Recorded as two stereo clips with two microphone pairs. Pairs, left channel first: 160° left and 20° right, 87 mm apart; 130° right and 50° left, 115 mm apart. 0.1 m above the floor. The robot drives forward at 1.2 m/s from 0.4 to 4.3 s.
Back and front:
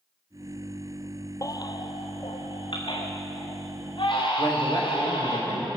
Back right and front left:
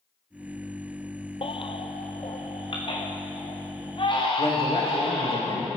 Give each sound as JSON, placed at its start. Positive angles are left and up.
{"t": 1.4, "sound": "a baby crying", "azimuth_deg": -160, "distance_m": 0.7}
{"t": 4.4, "sound": "a man speaking", "azimuth_deg": -160, "distance_m": 5.0}